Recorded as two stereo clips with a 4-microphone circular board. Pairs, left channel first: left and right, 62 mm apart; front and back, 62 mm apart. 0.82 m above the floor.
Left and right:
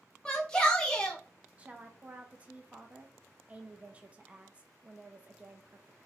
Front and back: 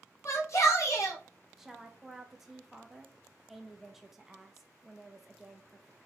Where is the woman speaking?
100° right, 0.6 m.